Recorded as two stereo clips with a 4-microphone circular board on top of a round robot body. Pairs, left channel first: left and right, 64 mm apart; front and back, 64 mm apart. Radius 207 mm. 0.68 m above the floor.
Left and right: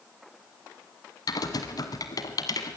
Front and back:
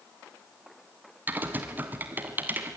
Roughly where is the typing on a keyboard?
Behind left.